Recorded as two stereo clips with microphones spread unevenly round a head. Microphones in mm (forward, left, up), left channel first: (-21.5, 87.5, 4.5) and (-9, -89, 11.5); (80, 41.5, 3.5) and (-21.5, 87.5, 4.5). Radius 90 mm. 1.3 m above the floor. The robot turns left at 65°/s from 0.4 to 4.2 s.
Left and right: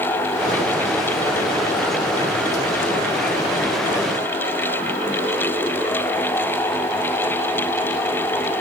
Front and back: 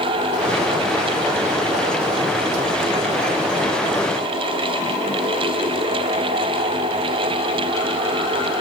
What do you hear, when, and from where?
Only background noise.